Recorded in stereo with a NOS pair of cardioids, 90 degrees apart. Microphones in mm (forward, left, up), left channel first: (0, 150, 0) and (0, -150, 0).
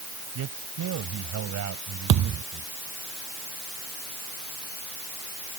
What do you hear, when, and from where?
0.3 s a man speaking: 65° right
2.1 s a thud: 65° right